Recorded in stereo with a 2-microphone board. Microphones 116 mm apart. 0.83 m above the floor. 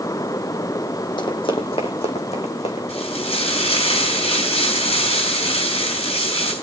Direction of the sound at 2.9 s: 60° left (ahead or behind).